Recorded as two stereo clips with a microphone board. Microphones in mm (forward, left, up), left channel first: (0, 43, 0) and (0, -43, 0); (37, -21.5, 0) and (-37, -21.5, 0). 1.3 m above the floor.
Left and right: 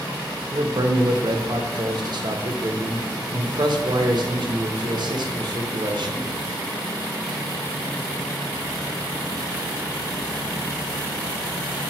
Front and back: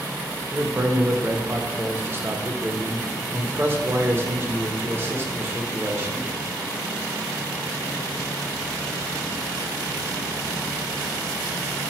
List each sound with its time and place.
0.5 s a man speaking: 120° right, 0.7 m